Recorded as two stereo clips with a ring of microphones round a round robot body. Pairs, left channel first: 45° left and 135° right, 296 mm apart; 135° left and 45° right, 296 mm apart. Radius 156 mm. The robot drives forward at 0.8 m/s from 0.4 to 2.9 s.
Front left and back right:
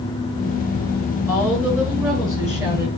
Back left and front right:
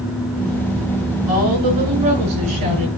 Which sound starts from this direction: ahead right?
A woman speaking, at 1.3 s.